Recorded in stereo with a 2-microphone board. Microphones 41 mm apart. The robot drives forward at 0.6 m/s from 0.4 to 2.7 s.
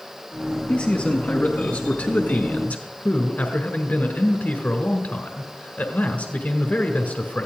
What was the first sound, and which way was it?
A man speaking, 40° left (ahead or behind).